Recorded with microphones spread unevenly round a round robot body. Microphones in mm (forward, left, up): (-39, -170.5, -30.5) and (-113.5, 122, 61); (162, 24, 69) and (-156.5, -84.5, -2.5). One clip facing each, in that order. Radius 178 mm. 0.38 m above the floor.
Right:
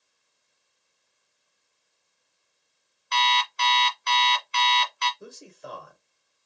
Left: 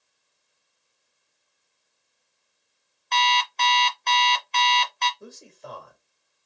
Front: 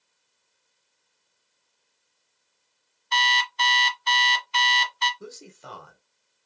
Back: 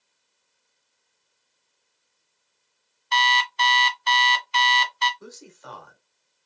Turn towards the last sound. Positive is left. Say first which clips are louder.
# even, front 2 dB
turn(degrees=-25)